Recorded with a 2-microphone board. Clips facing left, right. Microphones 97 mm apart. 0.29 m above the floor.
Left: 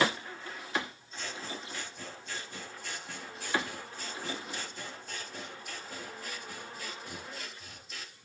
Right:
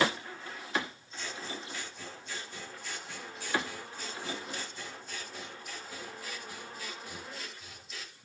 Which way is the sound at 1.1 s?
50° left (ahead or behind).